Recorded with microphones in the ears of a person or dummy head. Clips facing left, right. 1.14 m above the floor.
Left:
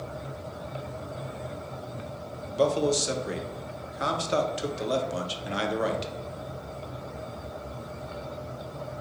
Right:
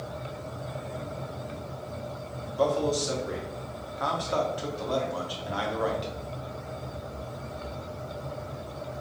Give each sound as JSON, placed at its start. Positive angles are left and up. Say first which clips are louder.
{"t": 2.5, "sound": "a man speaking", "louder": "left 2 dB", "side_deg": 25, "distance_m": 0.6}